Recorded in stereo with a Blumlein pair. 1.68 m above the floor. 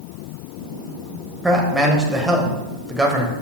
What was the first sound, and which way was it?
A man speaking, 5° right.